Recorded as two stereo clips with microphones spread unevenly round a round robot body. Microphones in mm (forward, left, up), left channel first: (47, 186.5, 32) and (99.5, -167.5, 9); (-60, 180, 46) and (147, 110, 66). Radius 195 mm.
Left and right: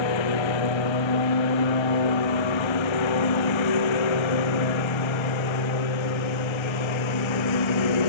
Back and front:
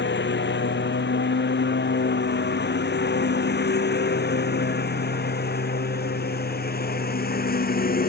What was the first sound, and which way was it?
A lawn mower, 125° left.